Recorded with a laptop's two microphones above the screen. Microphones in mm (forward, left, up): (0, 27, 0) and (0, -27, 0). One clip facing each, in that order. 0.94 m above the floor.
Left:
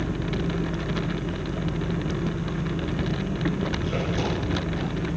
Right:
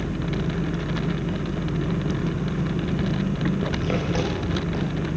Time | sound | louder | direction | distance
0.0 | an engine running | right 1 dB | 65° right (ahead or behind) | 7 m